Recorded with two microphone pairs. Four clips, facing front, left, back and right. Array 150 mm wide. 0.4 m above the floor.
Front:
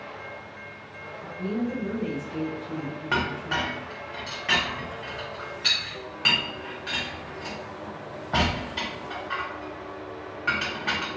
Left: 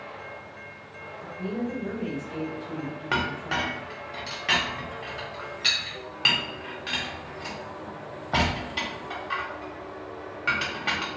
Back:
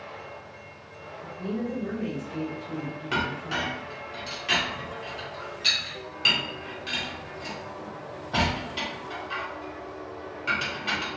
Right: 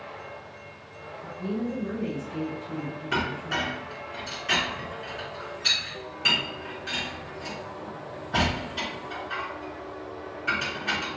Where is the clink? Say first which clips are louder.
Left 1 dB, front 2 dB; 70° left, 1.1 m.